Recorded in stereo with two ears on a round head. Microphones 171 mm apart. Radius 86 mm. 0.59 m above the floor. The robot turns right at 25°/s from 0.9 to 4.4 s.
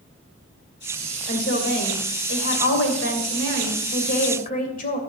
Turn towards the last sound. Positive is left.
turn(degrees=130)